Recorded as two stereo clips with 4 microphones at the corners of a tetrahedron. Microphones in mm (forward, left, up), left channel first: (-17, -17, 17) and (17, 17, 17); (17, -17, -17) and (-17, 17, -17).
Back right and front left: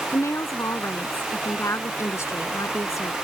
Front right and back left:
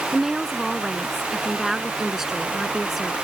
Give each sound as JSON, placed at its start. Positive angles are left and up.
{"t": 0.1, "sound": "a woman speaking", "azimuth_deg": -145}